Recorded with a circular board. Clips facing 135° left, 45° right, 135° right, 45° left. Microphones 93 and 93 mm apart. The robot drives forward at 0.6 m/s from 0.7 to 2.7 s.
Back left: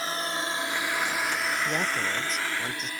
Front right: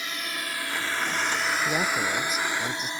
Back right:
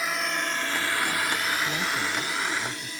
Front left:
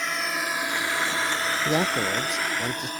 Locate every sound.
0.0 s a drone: 140° left; by 3.0 s 15° left
1.6 s a man speaking: 40° left